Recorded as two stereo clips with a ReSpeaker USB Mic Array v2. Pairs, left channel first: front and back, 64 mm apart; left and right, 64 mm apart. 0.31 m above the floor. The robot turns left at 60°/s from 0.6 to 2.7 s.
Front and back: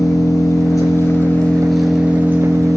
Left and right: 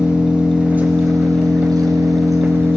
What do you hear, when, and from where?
0.0 s an engine running: 15° right, 3 m; by 2.8 s 145° right, 3 m